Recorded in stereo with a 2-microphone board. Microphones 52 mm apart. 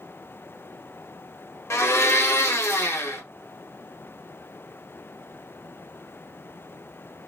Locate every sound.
1.7 s a blender: 60° left (ahead or behind), 1.2 m